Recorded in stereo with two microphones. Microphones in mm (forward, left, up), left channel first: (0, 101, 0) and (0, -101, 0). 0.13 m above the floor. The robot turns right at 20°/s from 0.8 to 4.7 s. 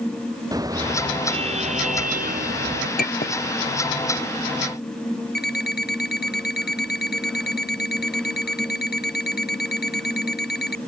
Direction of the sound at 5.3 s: 55° left (ahead or behind).